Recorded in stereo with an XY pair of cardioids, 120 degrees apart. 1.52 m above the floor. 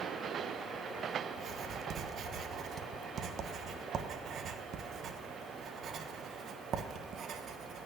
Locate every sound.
1.3 s writing: 55° right, 1.4 m